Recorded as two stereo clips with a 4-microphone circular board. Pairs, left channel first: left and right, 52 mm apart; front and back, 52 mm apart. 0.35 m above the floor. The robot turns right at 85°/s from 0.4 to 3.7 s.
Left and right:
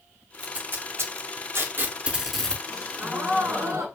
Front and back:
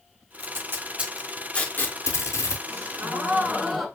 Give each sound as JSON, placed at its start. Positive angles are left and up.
{"t": 0.4, "sound": "tape being pulled", "azimuth_deg": -165, "distance_m": 0.5}
{"t": 2.7, "sound": "a gasp", "azimuth_deg": 175, "distance_m": 0.9}